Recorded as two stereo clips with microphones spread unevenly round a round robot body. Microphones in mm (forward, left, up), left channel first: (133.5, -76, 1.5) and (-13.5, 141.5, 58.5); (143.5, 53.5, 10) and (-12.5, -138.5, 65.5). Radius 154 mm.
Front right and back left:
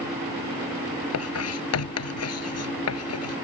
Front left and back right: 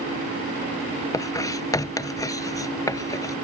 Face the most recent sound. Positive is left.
turn(degrees=-25)